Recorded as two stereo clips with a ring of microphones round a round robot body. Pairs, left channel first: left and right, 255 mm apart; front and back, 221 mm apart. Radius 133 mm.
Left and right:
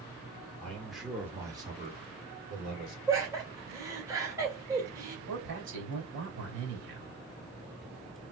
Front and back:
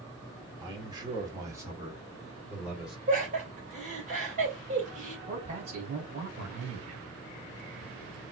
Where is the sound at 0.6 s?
160° left, 1.4 m; by 3.0 s 95° right, 1.7 m.